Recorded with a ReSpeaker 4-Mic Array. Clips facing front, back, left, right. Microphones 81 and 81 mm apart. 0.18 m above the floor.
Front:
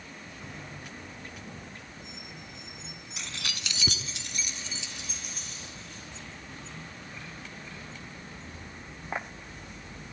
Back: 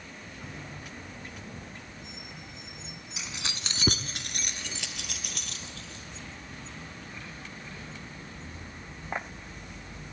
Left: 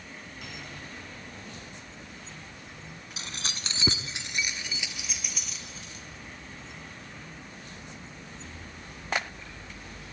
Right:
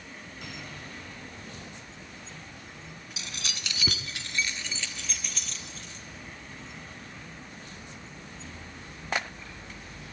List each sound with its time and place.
3.2 s keys jangling: 95° left, 0.9 m; by 6.0 s 175° left, 3.5 m